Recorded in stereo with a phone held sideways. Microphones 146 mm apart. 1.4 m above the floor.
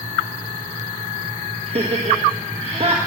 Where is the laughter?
45° right (ahead or behind), 1.6 m.